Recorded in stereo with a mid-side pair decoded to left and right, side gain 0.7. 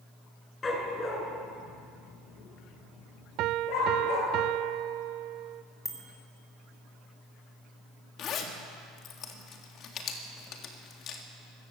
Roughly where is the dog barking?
Ahead.